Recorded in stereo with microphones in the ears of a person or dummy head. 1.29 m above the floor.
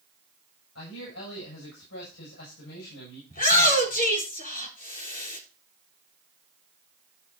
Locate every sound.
0.8 s a man speaking: 80° left, 8 m
3.3 s a shout: 50° left (ahead or behind), 4 m